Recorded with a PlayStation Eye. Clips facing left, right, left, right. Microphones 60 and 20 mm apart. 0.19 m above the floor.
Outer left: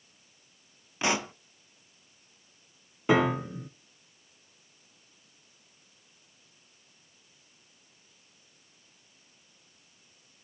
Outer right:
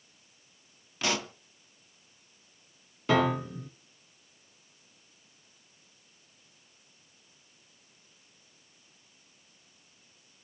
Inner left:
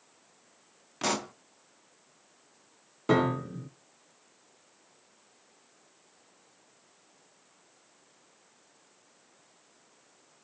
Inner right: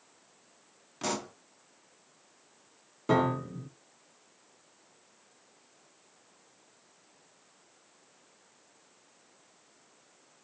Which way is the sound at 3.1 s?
20° left (ahead or behind).